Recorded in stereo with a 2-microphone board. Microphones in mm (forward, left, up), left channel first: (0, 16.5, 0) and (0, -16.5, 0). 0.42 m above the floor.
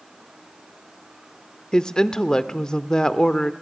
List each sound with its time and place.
1.7 s a woman speaking: 20° left (ahead or behind), 0.8 m